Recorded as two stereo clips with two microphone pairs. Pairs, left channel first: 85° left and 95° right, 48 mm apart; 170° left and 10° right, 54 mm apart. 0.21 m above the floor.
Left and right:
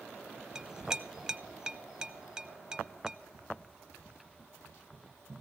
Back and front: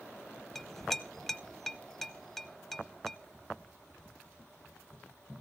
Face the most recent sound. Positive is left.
turn(degrees=-135)